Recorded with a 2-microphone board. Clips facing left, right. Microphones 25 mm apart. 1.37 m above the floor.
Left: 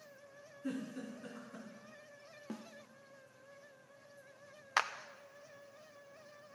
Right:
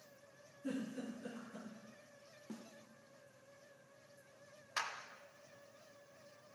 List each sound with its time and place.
0.6 s a giggle: 30° left (ahead or behind), 4 m
2.5 s a snare drum: 50° left (ahead or behind), 0.5 m
4.8 s a clap: 60° left (ahead or behind), 0.5 m